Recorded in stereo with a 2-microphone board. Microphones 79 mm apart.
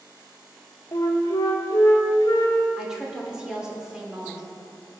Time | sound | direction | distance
0.9 | a flute | 55° left (ahead or behind) | 2.5 m
2.8 | a woman speaking | 5° right (ahead or behind) | 2.5 m